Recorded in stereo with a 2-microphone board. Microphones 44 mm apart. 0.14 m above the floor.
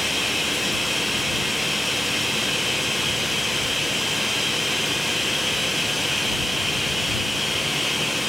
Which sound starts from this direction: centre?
Running water, at 0.0 s.